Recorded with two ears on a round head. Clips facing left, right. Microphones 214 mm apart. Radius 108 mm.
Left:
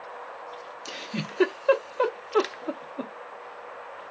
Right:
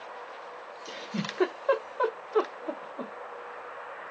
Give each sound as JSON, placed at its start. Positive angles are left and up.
{"t": 0.8, "sound": "a giggle", "side_deg": 40, "distance_m": 0.7}